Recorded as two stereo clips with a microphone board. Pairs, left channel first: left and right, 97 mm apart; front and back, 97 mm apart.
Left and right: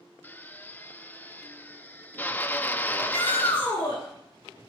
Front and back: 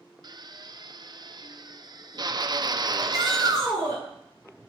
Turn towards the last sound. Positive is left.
turn(degrees=130)